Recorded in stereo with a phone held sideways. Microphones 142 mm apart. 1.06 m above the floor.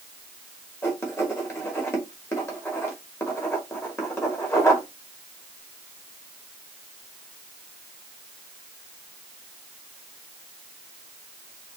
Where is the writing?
15° left (ahead or behind), 2 m.